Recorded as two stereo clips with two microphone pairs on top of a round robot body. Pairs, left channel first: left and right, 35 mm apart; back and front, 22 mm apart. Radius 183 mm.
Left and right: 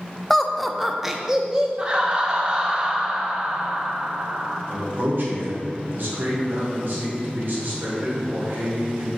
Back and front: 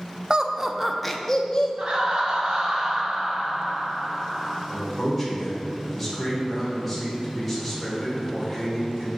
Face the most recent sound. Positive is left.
turn(degrees=-90)